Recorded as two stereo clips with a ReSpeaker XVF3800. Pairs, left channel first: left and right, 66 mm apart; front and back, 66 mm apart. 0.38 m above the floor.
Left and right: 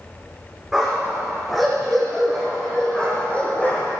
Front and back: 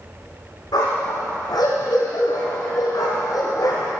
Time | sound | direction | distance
0.7 | a dog barking | 5° right | 6.5 m